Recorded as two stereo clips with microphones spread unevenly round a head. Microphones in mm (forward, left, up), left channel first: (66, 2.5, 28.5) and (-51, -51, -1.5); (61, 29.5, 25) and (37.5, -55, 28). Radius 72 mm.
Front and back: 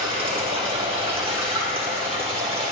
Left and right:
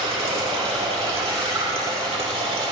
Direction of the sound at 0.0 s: 105° right.